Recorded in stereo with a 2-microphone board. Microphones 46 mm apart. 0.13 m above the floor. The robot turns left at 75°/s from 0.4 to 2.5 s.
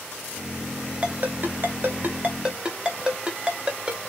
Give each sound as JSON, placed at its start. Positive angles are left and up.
{"t": 1.0, "sound": "a ringtone", "side_deg": -35, "distance_m": 0.6}